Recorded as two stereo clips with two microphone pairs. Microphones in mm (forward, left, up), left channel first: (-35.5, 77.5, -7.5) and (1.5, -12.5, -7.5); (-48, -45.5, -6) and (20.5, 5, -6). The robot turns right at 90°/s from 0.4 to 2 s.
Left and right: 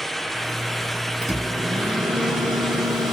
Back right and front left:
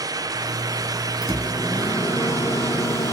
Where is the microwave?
170° right, 1.3 m; by 3.1 s 100° right, 1.3 m.